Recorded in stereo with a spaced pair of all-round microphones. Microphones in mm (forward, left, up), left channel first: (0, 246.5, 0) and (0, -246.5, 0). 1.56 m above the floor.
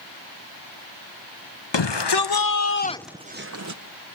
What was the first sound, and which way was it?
A shout, 60° left (ahead or behind).